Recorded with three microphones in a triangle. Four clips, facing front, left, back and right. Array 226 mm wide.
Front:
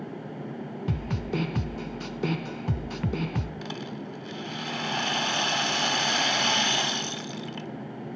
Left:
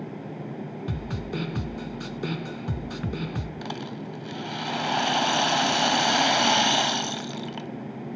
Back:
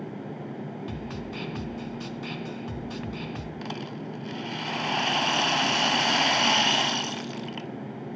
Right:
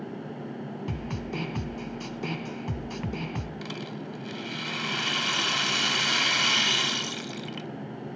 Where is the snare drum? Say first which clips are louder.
Left 2 dB, front 4 dB; 10° left, 1.1 m.